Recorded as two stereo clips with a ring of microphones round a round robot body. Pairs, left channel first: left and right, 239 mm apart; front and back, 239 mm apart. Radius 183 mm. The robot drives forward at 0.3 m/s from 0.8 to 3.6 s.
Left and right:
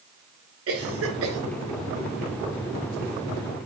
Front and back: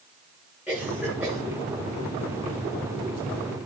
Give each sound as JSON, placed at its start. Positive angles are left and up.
{"t": 0.7, "sound": "a cough", "azimuth_deg": -95, "distance_m": 3.0}